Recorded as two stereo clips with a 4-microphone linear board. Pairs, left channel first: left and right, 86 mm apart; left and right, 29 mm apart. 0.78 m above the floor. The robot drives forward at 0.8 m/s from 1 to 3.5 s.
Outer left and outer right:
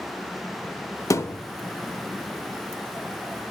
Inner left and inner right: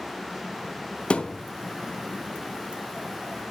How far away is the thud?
About 0.6 m.